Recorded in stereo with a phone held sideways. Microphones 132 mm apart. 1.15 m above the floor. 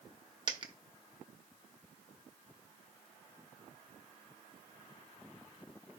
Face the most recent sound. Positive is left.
turn(degrees=-35)  # may be behind; listen again after turning